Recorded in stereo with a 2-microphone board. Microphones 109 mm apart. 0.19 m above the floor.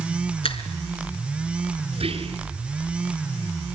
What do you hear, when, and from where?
0.4 s a finger snap: 60° left (ahead or behind), 2.5 m
1.9 s whispering: 60° right (ahead or behind), 2.5 m